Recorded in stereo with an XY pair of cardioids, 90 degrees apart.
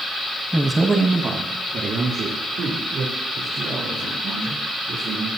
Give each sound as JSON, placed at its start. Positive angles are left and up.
{"t": 0.5, "sound": "a man speaking", "azimuth_deg": -5, "distance_m": 0.9}